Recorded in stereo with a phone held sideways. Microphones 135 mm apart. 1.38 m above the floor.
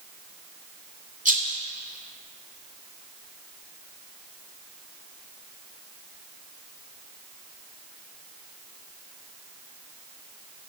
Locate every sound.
1.2 s a rattle: 75° right (ahead or behind), 2.5 m